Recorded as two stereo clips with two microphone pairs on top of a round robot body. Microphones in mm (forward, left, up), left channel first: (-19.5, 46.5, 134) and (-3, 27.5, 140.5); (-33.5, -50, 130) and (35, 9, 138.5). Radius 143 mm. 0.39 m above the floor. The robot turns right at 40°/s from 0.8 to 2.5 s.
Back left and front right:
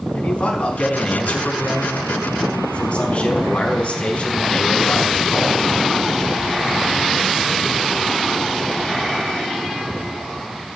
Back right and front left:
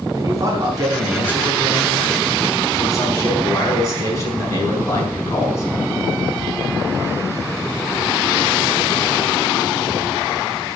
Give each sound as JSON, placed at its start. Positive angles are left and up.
{"t": 0.1, "sound": "a man speaking", "azimuth_deg": 95, "distance_m": 5.0}